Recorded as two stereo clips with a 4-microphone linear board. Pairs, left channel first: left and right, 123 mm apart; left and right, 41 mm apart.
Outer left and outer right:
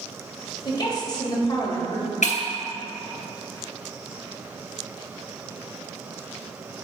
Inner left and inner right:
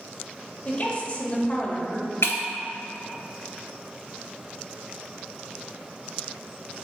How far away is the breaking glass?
About 0.8 m.